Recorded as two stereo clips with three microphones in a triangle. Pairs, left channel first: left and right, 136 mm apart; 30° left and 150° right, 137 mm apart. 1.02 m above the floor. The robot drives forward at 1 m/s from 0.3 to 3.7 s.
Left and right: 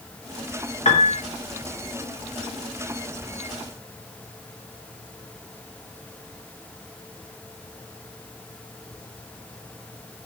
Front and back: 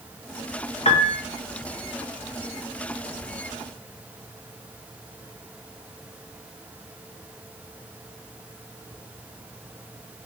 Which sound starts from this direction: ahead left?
A piano, at 0.8 s.